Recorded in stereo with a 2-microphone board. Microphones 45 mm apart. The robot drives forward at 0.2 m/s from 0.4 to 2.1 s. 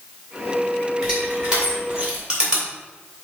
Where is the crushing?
20° right (ahead or behind), 2 m.